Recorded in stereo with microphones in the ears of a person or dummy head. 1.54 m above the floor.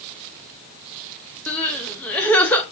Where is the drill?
I don't hear a drill.